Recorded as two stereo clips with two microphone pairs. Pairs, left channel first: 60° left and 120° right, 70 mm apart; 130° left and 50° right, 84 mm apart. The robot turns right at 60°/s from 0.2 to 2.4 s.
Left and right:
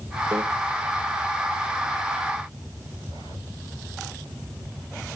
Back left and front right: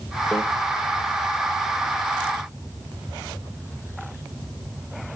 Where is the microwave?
155° right, 2.5 m; by 0.4 s 150° right, 2.5 m.